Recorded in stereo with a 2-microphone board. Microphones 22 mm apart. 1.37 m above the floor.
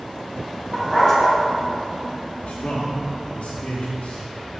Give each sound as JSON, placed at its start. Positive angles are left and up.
{"t": 0.7, "sound": "a dog barking", "side_deg": 25, "distance_m": 2.0}
{"t": 2.4, "sound": "a man speaking", "side_deg": 70, "distance_m": 1.1}